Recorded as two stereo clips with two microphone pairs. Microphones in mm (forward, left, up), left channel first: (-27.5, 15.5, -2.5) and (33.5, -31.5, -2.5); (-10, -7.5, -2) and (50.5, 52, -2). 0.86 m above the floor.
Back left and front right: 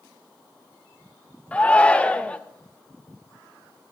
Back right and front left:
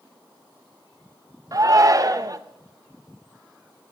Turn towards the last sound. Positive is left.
turn(degrees=70)